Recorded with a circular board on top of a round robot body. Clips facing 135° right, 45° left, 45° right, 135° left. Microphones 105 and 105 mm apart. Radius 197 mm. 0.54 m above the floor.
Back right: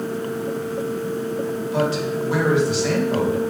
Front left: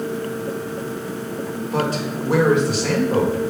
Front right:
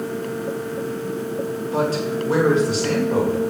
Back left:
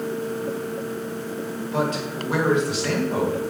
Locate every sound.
1.7 s a man speaking: 5° left, 2.5 m